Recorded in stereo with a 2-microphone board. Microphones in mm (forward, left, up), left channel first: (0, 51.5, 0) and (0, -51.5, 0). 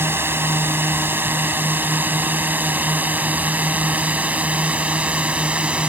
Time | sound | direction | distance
0.0 | a drone | 25° right (ahead or behind) | ?